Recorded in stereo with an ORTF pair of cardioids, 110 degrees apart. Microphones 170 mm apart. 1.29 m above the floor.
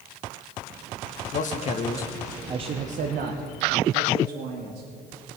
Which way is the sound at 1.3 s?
55° left.